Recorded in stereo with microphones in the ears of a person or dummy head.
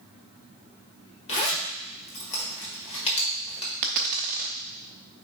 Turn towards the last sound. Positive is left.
turn(degrees=-30)  # may be behind; listen again after turning